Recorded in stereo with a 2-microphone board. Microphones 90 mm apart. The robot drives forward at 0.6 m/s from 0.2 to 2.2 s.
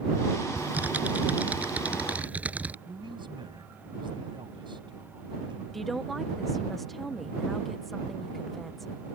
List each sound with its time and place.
0.6 s typing on a keyboard: 20° right (ahead or behind); by 2.8 s 15° right (ahead or behind)
2.9 s a man speaking: 60° right (ahead or behind)
5.7 s a woman speaking: centre (ahead or behind)